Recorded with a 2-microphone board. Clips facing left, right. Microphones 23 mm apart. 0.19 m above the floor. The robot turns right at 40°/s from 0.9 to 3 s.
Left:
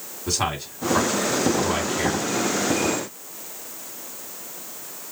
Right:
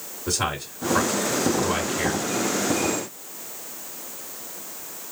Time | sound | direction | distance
0.3 | a man speaking | 25° left (ahead or behind) | 2 m